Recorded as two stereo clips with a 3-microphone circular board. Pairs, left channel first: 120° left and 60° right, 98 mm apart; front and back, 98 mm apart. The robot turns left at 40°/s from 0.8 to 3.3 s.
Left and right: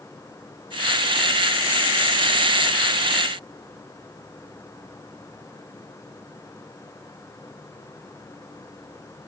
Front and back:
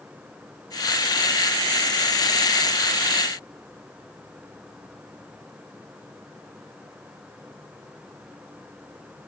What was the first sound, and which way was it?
Only background noise.